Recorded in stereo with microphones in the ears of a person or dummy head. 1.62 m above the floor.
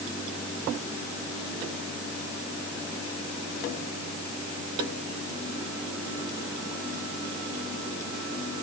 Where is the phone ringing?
No phone ringing in this recording.